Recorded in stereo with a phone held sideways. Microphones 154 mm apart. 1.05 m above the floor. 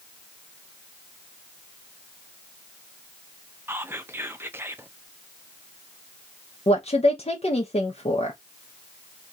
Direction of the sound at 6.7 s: 45° left (ahead or behind).